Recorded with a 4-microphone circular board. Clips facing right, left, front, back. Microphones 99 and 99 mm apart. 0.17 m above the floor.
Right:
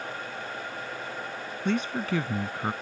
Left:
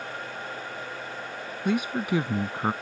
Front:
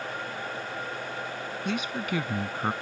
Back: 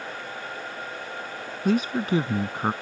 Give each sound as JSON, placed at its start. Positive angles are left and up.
{"t": 1.6, "sound": "a man speaking", "azimuth_deg": 165}